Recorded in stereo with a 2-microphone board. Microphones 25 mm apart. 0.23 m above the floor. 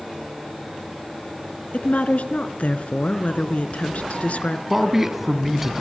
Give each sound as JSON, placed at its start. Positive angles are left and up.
{"t": 1.7, "sound": "a woman speaking", "side_deg": 70, "distance_m": 2.5}
{"t": 4.7, "sound": "a man speaking", "side_deg": -10, "distance_m": 2.5}